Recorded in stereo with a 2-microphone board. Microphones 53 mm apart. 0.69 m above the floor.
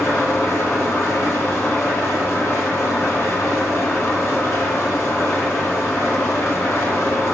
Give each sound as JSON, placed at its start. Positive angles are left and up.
{"t": 0.0, "sound": "an engine running", "side_deg": 60, "distance_m": 2.0}